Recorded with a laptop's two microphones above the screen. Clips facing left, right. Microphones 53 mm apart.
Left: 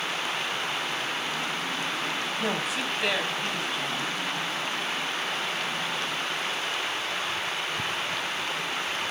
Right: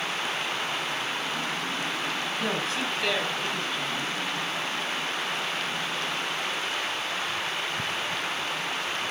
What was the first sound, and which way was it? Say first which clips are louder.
A woman speaking: even; 15° left (ahead or behind).